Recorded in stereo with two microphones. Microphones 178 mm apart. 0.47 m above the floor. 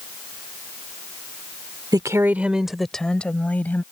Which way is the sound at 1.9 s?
25° right (ahead or behind).